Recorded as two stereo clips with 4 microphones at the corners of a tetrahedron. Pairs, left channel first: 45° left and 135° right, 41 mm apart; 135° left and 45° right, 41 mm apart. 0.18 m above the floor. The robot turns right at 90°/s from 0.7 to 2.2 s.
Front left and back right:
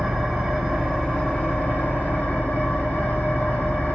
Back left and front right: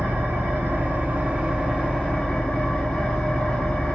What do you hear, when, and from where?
0.0 s an engine running: 55° right, 1.3 m; by 4.0 s 80° left, 1.3 m